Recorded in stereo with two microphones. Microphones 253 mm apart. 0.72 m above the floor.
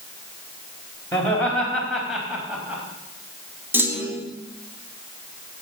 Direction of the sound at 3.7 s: 10° right (ahead or behind).